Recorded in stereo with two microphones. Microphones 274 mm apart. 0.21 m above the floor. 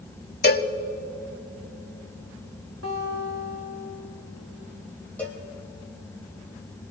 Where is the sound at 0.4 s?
35° left (ahead or behind), 0.8 m.